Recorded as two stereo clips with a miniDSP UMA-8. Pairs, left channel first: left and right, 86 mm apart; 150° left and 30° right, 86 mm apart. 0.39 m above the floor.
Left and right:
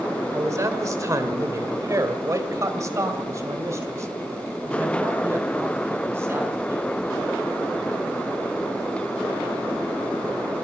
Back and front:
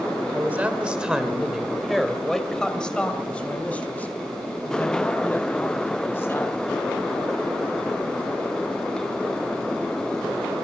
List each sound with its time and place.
0.3 s a man speaking: 85° right, 1.6 m; by 6.9 s 150° right, 4 m